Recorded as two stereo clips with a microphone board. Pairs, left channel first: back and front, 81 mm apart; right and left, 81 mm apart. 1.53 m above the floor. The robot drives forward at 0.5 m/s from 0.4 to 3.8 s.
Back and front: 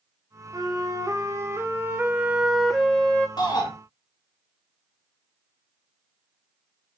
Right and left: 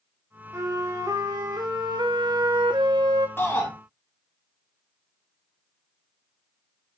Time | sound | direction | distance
0.5 | a flute | 40° left | 1.5 m
3.4 | a shout | 150° right | 3 m